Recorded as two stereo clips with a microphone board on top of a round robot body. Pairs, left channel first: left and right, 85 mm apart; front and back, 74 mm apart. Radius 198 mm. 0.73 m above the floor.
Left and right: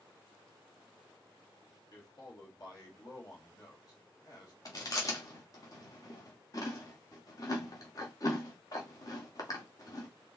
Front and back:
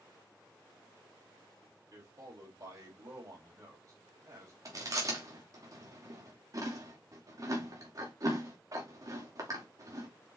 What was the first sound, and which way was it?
A man speaking, 130° left.